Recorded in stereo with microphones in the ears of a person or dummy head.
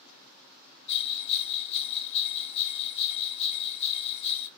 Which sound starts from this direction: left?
A bell, at 0.9 s.